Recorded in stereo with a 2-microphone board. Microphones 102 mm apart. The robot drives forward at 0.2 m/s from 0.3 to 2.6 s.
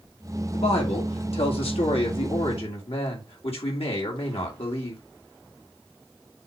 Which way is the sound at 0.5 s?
80° left.